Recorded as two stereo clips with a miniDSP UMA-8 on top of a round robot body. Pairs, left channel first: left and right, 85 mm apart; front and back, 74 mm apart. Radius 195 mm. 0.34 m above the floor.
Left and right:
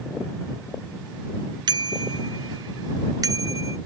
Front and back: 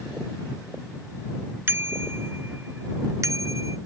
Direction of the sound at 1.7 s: 120° right.